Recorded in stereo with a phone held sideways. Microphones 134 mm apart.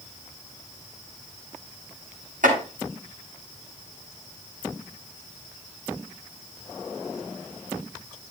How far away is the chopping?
About 9.5 m.